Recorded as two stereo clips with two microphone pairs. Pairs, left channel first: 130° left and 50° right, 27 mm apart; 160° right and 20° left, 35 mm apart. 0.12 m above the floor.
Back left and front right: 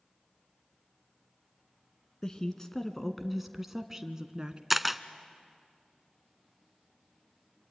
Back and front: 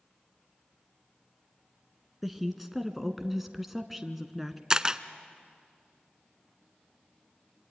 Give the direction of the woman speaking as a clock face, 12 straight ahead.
9 o'clock.